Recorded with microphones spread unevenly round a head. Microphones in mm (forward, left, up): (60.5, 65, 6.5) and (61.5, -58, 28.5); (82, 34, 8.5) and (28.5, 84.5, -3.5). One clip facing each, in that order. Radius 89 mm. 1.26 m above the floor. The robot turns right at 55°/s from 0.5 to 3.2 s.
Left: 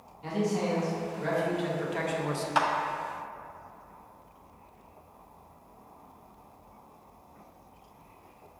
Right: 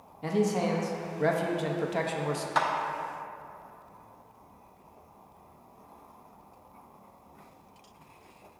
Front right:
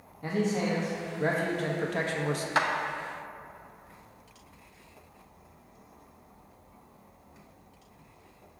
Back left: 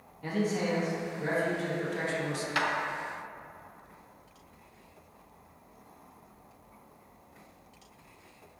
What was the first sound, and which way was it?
A man speaking, 115° right.